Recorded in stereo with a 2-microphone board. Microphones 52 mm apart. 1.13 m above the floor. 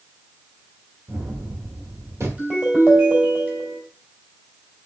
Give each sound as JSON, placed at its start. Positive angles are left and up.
{"t": 1.1, "sound": "a gunshot", "side_deg": -65, "distance_m": 1.5}
{"t": 2.4, "sound": "a ringtone", "side_deg": -30, "distance_m": 3.5}